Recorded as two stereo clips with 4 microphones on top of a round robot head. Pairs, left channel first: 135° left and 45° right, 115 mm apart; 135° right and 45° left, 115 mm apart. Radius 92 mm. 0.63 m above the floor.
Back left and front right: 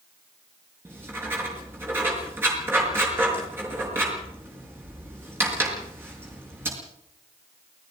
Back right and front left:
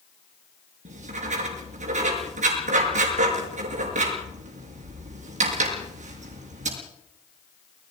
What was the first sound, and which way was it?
Writing, 25° left.